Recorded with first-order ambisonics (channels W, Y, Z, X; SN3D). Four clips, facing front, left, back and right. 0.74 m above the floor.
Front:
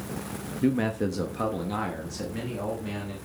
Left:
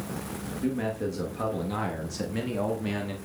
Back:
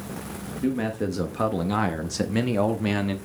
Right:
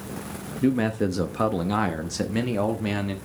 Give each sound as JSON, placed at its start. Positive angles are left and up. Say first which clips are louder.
{"t": 0.6, "sound": "a man speaking", "louder": "right 7 dB, front 1 dB", "azimuth_deg": -70, "distance_m": 0.9}